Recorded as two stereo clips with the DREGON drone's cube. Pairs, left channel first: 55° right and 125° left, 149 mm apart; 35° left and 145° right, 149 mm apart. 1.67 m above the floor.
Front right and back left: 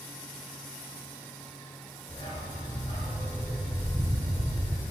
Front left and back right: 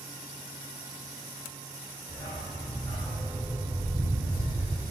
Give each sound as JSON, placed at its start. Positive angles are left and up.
{"t": 2.1, "sound": "a dog barking", "azimuth_deg": -25, "distance_m": 2.0}